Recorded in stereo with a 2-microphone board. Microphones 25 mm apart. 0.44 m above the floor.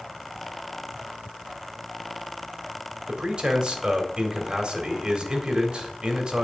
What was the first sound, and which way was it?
A man speaking, 35° right (ahead or behind).